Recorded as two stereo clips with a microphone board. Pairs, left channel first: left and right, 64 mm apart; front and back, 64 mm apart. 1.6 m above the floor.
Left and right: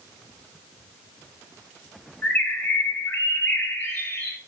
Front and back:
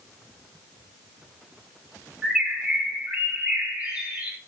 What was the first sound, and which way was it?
A bird, 125° left.